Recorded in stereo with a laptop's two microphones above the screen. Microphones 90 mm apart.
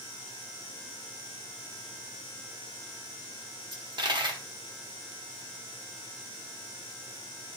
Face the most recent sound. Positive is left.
turn(degrees=-55)  # may be behind; listen again after turning